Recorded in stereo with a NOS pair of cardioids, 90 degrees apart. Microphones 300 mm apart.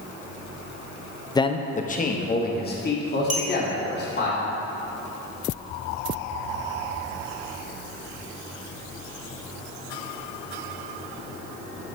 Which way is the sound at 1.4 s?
15° left.